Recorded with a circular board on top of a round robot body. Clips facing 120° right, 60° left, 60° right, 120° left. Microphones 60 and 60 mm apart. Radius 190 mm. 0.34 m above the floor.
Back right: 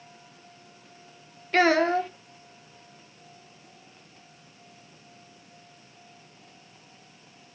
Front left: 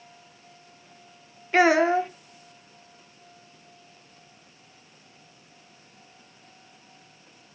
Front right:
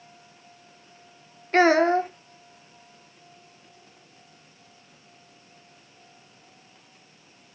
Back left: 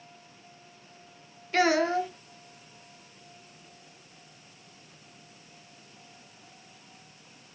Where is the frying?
I don't hear frying.